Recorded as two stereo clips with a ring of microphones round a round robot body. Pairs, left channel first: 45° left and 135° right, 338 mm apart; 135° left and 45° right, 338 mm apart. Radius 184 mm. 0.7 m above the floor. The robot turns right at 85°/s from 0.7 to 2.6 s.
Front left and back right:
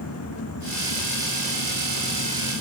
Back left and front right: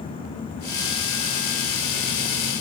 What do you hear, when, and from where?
Only background noise.